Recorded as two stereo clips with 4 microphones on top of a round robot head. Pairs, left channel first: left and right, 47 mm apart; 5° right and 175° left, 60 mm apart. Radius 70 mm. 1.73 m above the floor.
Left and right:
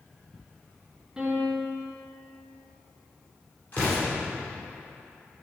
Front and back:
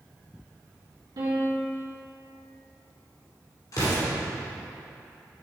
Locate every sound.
1.2 s a piano: 170° right, 2 m
3.7 s an explosion: 25° left, 2 m